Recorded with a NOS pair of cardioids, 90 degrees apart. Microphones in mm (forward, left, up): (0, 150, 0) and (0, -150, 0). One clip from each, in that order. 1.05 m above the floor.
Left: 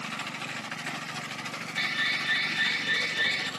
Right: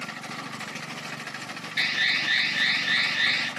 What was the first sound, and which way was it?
An alarm, 55° right.